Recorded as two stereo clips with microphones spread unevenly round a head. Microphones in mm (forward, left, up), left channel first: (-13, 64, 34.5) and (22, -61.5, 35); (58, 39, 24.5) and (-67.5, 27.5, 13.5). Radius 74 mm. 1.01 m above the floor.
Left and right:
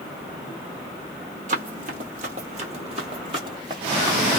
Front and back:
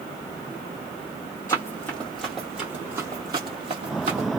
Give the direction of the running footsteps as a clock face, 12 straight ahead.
2 o'clock.